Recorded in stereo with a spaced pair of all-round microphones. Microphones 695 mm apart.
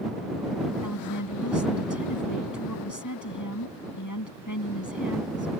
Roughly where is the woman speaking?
Left.